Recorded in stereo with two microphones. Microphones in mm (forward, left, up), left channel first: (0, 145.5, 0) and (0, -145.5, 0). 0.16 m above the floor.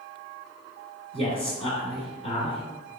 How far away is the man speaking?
About 1.4 m.